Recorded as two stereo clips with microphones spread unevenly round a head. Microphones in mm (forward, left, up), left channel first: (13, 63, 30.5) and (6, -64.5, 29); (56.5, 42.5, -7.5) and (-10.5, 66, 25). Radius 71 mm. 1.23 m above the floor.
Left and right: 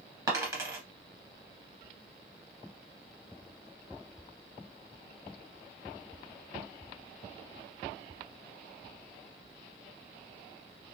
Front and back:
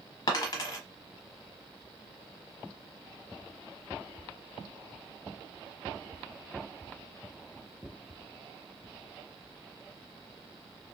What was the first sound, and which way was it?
A dropped coin, 45° right.